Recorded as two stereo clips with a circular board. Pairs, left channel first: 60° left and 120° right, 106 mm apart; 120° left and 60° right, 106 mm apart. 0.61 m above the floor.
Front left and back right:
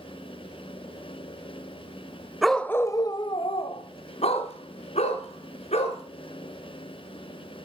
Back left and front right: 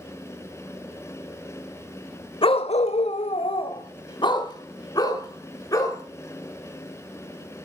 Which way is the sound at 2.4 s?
150° left.